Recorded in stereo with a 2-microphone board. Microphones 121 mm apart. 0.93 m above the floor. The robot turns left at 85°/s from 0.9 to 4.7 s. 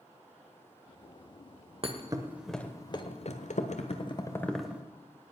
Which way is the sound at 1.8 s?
50° right (ahead or behind).